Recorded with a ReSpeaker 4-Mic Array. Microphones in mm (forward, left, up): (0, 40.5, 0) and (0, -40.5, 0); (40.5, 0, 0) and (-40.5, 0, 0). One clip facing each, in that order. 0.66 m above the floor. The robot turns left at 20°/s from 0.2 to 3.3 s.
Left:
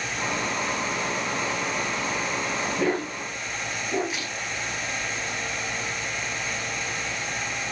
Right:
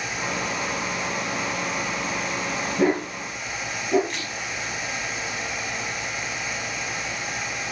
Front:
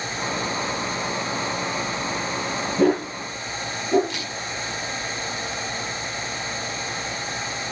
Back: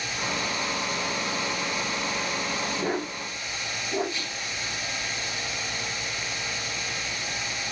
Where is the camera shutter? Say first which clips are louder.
Even, front 3 dB; 5° left, 5 m.